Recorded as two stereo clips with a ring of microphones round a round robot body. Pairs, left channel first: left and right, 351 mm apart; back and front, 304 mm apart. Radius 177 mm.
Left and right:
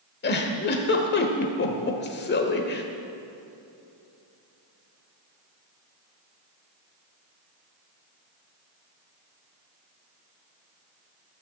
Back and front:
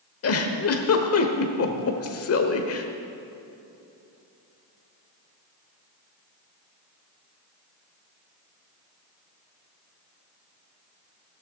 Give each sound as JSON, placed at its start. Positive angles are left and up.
{"t": 0.2, "sound": "a giggle", "azimuth_deg": 150, "distance_m": 1.2}